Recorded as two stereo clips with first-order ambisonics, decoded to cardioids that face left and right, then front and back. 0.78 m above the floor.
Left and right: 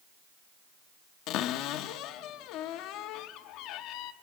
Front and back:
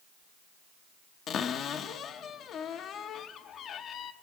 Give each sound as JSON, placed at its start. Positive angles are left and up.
{"t": 1.3, "sound": "a cupboard door", "azimuth_deg": 55, "distance_m": 0.7}